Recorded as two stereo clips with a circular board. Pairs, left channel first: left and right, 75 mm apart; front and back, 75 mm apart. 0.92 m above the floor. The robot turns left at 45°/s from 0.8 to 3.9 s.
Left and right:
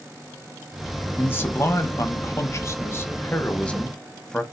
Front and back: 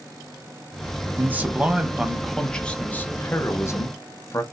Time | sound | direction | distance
1.2 | a man speaking | 140° left | 0.8 m